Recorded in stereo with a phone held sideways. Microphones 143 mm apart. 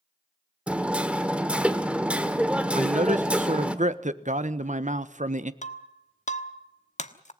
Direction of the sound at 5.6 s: 55° left (ahead or behind).